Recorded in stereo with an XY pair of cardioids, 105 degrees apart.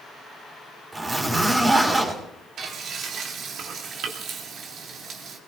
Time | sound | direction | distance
0.9 | a zipper | 25° right | 4.5 m
2.6 | frying | 65° right | 3 m